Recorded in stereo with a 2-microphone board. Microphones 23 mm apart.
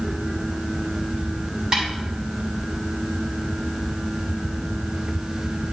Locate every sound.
1.7 s a snare drum: 35° right (ahead or behind), 5.5 m